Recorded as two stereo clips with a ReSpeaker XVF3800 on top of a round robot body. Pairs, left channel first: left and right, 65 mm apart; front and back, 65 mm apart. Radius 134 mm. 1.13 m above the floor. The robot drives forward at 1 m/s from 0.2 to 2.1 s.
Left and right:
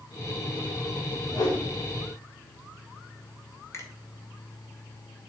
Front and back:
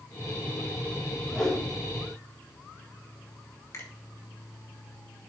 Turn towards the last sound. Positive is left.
turn(degrees=45)